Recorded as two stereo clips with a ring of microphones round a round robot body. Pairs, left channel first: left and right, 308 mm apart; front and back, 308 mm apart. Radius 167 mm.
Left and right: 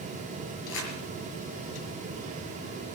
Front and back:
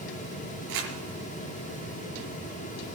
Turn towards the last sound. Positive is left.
turn(degrees=145)